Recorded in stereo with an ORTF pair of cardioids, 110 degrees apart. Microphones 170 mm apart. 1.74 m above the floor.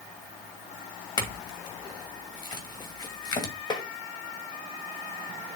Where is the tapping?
25° left, 1.6 m.